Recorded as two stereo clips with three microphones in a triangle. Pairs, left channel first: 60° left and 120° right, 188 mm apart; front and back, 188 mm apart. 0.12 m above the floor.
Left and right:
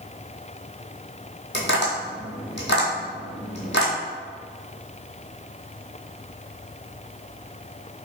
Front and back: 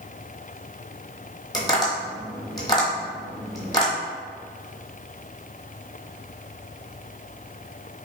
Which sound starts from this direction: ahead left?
Tapping, at 1.5 s.